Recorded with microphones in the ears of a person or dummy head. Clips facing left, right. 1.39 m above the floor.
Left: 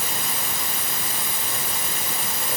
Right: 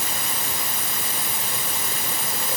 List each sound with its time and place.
Only background noise.